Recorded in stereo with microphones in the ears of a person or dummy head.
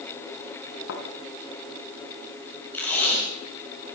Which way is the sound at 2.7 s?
15° left (ahead or behind).